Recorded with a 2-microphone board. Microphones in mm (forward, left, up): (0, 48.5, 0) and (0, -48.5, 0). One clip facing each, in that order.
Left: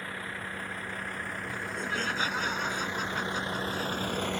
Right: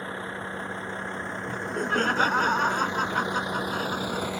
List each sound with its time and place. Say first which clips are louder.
0.0 s a vehicle: right 5 dB; 30° right (ahead or behind); by 4.4 s 5° right (ahead or behind)
1.5 s laughter: right 8 dB; 50° right (ahead or behind)